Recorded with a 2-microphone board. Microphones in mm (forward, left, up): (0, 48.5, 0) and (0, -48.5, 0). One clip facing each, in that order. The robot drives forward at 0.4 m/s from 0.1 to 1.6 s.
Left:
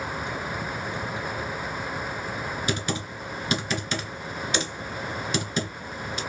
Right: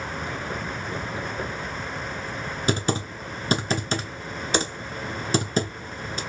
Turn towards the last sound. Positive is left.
turn(degrees=-35)  # may be behind; listen again after turning